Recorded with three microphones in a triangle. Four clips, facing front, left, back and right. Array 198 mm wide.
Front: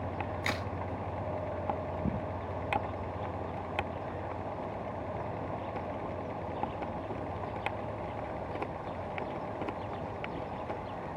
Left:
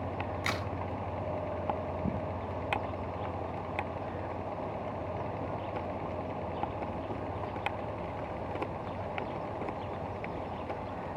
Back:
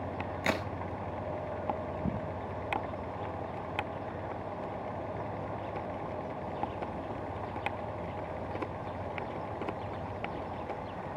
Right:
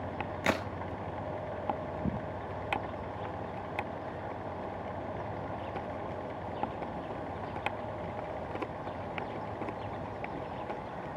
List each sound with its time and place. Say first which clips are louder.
0.4 s a crack: right 8 dB, back 7 dB; 120° right, 0.7 m